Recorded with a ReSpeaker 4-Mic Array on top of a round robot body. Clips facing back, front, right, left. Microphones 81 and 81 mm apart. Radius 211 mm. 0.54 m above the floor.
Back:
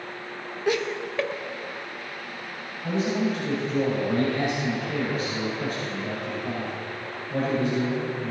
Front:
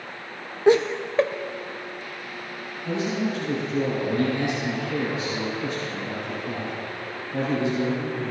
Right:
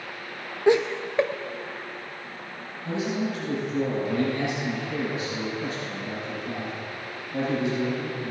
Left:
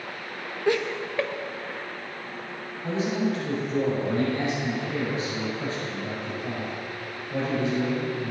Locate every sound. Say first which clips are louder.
0.7 s laughter: front 8 dB, right 4 dB; 35° right, 0.6 m
2.8 s a man speaking: back 1 dB, left 2 dB; 140° left, 5 m